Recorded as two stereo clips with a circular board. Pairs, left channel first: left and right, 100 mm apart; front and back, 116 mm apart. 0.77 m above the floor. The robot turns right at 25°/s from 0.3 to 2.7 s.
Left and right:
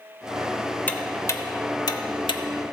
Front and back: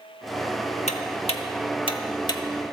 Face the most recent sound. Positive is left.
turn(degrees=60)